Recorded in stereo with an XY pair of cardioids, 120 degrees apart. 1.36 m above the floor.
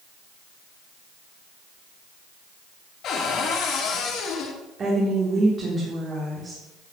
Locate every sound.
3.0 s a cupboard door: 60° left, 3 m
4.8 s a woman speaking: 35° right, 3.5 m